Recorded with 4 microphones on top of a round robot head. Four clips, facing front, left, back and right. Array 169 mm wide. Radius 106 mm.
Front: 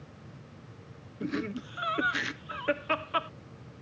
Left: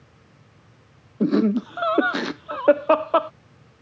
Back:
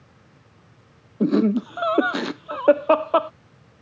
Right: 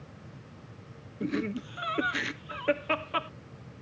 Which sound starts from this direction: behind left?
Laughter, at 1.2 s.